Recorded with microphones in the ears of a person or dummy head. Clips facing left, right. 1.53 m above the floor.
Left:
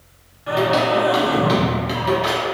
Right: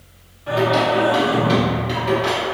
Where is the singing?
10° left (ahead or behind), 0.8 m.